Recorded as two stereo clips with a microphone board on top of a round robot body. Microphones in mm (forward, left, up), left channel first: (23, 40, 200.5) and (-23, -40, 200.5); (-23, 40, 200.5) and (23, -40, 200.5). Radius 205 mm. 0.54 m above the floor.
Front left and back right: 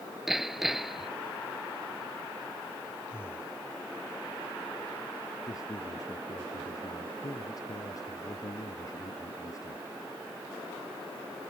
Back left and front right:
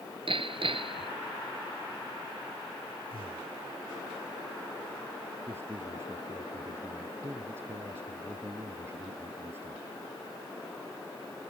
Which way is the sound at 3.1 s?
125° left.